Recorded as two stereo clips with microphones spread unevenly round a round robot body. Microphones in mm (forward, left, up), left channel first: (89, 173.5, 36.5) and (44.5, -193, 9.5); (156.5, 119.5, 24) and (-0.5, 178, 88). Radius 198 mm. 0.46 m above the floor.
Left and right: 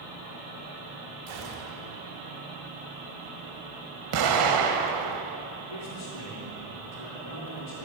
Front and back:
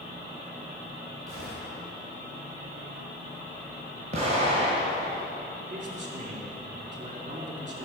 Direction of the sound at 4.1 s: 125° right.